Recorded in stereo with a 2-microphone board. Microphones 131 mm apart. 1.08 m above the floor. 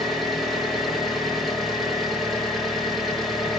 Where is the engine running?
Centre (ahead or behind), 1.2 m.